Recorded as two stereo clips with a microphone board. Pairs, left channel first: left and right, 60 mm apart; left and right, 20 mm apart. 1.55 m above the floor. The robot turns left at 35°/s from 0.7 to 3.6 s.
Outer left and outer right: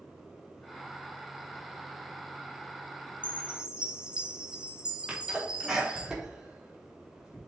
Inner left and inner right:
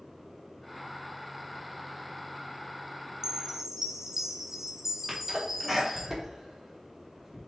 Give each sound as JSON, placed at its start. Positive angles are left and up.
{"t": 3.2, "sound": "a chime", "side_deg": -30, "distance_m": 0.9}
{"t": 5.1, "sound": "a sneeze", "side_deg": -15, "distance_m": 4.0}